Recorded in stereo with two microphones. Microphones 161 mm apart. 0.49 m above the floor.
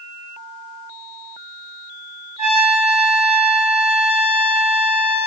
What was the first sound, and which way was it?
A trumpet, 40° right (ahead or behind).